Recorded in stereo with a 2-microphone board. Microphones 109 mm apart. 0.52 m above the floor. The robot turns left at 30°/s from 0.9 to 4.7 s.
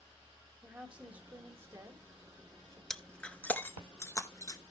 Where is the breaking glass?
5° left (ahead or behind), 0.5 m; by 4.6 s 35° left (ahead or behind), 0.5 m.